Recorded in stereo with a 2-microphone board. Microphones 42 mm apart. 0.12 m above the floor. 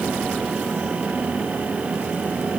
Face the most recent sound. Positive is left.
No sound to turn to.